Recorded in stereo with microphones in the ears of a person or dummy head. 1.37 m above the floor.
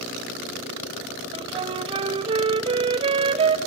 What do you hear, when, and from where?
1.3 s a flute: 30° right (ahead or behind), 0.9 m